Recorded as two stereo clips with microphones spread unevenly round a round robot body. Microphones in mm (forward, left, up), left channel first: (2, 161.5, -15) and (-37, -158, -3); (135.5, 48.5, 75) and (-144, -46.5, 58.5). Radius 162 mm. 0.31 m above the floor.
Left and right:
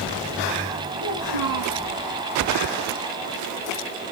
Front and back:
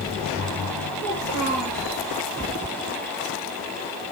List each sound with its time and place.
1.0 s a child speaking: 85° left, 6.5 m